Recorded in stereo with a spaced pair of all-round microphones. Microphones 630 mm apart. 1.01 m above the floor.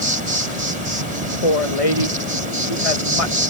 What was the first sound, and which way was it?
An insect, 80° right.